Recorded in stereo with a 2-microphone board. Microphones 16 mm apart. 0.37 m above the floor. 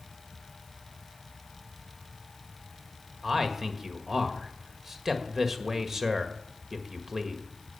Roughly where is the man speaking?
Right.